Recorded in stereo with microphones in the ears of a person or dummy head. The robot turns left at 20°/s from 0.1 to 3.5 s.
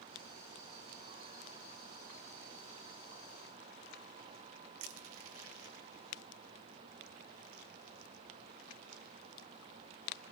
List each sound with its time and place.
4.8 s crushing: 75° right (ahead or behind), 1.4 m